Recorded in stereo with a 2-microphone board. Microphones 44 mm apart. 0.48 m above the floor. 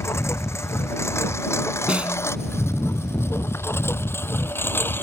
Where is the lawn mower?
85° left; by 5.0 s 50° left (ahead or behind).